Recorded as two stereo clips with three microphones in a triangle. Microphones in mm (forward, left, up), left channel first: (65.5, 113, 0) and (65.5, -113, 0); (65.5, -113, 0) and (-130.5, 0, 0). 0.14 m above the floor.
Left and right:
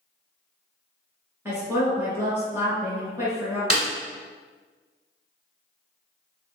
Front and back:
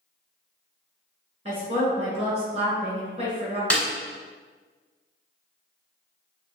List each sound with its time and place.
1.4 s a woman speaking: 165° right, 1.5 m
3.7 s a snare drum: 50° left, 1.1 m